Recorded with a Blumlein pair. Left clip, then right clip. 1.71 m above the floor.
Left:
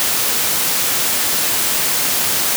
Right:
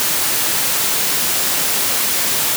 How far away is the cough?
No cough in this recording.